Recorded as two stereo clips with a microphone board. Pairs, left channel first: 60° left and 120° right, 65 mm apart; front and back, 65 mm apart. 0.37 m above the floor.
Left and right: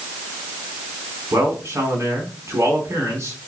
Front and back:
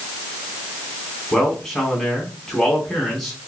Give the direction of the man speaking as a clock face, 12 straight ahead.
3 o'clock.